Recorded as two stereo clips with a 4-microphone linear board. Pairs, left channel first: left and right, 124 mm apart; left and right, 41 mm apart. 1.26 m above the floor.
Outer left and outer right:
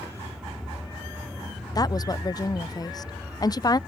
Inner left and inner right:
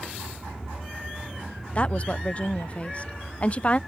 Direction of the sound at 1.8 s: 30° left (ahead or behind).